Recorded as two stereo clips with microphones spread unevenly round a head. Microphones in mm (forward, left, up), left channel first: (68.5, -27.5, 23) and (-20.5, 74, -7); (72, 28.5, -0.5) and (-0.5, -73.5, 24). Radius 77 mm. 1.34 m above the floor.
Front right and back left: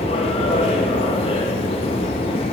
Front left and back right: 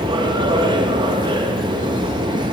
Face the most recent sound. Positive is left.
turn(degrees=-85)